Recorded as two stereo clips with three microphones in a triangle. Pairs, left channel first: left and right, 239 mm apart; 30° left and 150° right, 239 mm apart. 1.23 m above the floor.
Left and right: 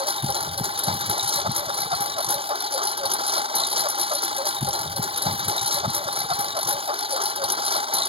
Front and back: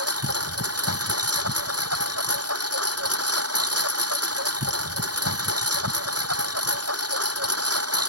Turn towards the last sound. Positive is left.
turn(degrees=-155)